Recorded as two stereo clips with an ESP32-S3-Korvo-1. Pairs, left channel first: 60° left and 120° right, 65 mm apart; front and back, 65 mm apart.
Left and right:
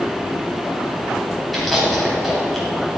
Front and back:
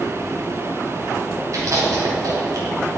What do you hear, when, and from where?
1.5 s chewing: 150° left, 3 m